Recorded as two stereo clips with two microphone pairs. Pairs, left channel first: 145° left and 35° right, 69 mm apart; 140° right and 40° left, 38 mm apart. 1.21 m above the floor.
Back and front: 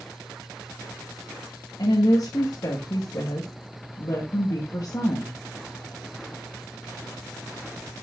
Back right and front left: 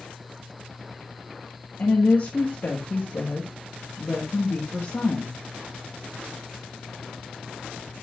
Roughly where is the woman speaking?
Behind.